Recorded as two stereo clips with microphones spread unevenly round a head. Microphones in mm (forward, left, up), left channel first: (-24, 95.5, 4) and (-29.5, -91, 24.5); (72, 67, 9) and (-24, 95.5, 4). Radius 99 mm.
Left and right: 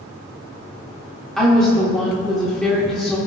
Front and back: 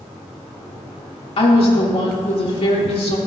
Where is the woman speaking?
Straight ahead, 2 m.